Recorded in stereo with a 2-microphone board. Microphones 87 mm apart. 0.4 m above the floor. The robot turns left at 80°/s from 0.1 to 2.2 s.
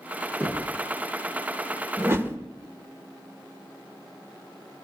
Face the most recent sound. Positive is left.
turn(degrees=-25)  # may be behind; listen again after turning